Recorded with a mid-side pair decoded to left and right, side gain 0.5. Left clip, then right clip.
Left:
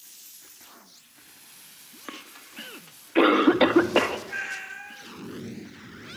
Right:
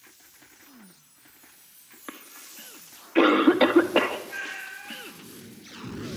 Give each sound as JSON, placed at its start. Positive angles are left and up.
{"t": 2.1, "sound": "a cough", "azimuth_deg": 10, "distance_m": 2.0}
{"t": 4.3, "sound": "a cat meowing", "azimuth_deg": 40, "distance_m": 5.0}